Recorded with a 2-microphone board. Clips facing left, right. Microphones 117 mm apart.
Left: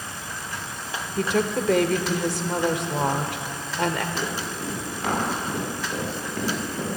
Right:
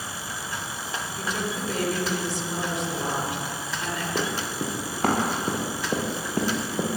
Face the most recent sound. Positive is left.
turn(degrees=-30)  # may be behind; listen again after turning